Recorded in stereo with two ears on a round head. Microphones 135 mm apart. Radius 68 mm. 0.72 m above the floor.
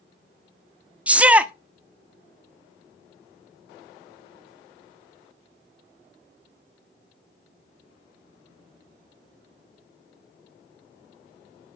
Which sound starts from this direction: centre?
A shout, at 1.1 s.